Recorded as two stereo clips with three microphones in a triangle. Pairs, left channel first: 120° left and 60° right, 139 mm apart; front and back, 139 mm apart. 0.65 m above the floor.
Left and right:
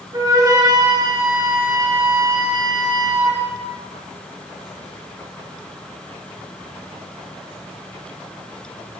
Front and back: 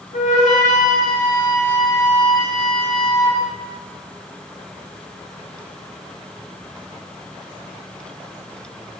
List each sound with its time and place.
0.1 s a flute: straight ahead, 3.5 m